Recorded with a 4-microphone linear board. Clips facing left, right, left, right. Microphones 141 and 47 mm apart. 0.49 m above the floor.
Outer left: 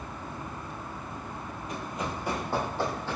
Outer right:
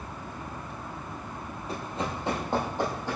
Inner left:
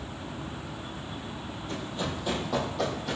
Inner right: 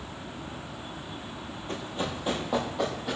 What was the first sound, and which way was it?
Running footsteps, 35° right (ahead or behind).